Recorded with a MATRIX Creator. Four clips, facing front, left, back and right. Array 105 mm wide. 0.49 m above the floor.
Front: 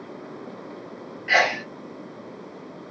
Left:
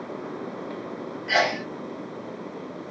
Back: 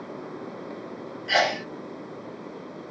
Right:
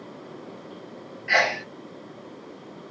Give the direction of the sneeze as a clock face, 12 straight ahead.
1 o'clock.